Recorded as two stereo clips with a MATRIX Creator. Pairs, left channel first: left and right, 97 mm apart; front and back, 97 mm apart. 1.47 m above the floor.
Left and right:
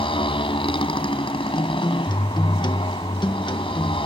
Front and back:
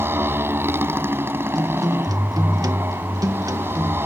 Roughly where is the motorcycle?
Behind left.